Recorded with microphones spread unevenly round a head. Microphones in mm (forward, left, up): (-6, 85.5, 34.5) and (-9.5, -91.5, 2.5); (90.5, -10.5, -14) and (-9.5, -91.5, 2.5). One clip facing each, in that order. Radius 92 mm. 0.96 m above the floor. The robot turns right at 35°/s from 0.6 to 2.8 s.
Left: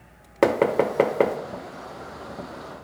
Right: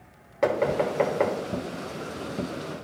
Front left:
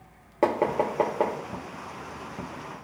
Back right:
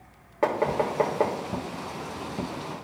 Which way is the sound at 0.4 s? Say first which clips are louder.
Left 4 dB, front left 1 dB; 110° left.